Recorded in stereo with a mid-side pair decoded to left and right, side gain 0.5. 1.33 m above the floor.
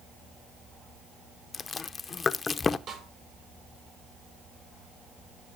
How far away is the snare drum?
About 7.5 m.